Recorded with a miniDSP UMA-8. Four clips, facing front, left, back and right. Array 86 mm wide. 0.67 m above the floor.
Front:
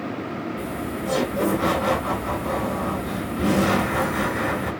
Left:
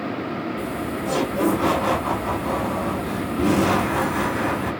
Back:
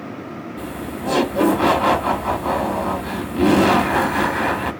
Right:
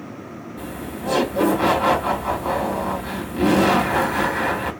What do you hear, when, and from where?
0.6 s laughter: 160° right, 1.4 m